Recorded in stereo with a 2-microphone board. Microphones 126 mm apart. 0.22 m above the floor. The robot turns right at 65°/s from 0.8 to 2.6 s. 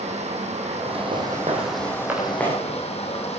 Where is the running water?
60° right, 3.5 m; by 3.4 s 55° left, 3.5 m.